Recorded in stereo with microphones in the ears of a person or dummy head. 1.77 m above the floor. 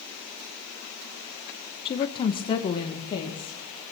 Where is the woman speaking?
30° left (ahead or behind), 1.0 m.